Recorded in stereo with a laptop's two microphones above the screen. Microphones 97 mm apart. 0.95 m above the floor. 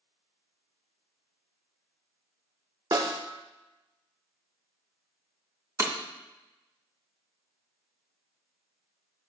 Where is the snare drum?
45° right (ahead or behind), 0.8 m.